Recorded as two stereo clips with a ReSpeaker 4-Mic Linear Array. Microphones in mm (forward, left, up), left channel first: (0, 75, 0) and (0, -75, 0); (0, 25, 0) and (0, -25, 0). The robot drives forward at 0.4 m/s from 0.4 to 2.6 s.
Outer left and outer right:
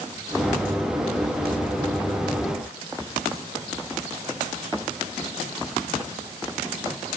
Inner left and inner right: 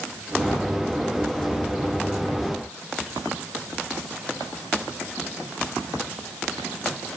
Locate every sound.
Only background noise.